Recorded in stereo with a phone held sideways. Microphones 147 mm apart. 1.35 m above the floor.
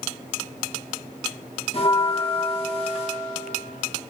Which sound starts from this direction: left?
A bell, at 1.7 s.